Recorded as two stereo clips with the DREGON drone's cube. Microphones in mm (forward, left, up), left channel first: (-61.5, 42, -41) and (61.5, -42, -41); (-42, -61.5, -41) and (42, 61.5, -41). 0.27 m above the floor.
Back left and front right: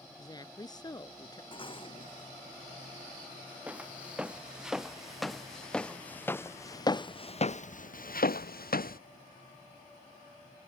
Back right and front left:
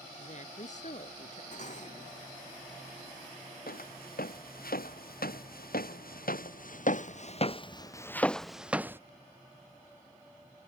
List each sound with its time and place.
0.1 s a woman speaking: 155° right
1.5 s dishes clattering: 160° right
3.7 s footsteps: 115° right; by 9.0 s 130° left